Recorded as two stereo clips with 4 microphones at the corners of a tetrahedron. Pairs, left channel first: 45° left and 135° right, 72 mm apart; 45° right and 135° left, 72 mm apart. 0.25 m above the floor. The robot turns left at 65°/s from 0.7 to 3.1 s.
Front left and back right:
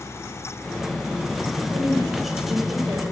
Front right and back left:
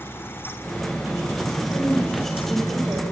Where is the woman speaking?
115° right, 6.5 m; by 3.0 s 155° left, 6.5 m.